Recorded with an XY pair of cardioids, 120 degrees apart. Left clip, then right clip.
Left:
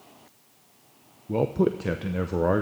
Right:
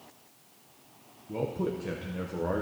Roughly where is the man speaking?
Ahead left.